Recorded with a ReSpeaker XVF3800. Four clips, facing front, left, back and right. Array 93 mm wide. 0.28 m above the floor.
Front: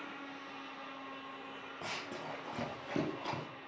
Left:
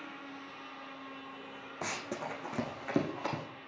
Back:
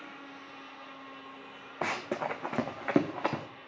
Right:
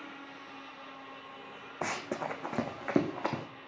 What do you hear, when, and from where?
1.8 s running footsteps: 150° right, 0.8 m